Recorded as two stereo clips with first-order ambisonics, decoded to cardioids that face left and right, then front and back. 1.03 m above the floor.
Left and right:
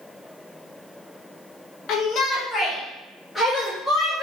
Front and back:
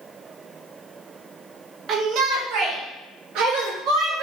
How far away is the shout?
About 0.6 m.